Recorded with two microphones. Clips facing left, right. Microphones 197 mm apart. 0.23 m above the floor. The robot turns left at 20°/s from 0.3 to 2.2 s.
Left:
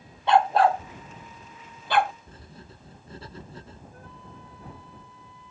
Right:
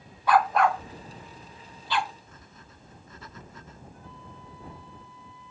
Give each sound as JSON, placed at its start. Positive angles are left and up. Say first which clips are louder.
{"t": 0.3, "sound": "a dog barking", "louder": "left 2 dB", "side_deg": 25}
{"t": 2.3, "sound": "writing", "louder": "left 5 dB", "side_deg": 35}
{"t": 3.9, "sound": "a flute", "louder": "left 1 dB", "side_deg": 60}